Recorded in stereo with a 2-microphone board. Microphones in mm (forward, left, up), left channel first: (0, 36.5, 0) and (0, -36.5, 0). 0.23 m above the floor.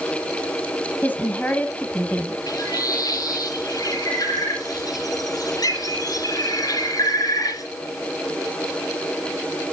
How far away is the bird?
About 2.5 m.